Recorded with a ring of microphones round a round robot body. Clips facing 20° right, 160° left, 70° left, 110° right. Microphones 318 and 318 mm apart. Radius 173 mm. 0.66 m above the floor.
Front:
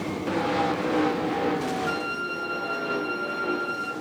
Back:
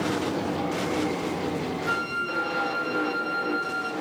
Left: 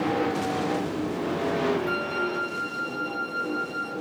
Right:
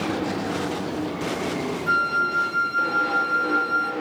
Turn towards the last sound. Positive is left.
turn(degrees=-105)